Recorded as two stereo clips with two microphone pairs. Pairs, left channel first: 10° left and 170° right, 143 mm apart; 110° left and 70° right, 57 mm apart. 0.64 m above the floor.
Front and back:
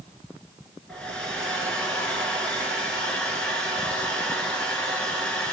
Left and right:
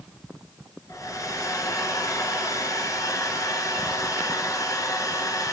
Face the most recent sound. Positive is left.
turn(degrees=95)